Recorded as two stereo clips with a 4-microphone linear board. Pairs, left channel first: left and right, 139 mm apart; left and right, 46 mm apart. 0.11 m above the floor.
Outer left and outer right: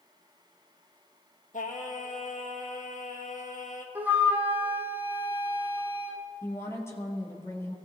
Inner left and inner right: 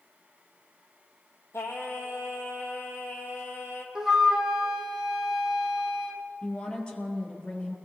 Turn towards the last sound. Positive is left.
turn(degrees=20)  # may be behind; listen again after turning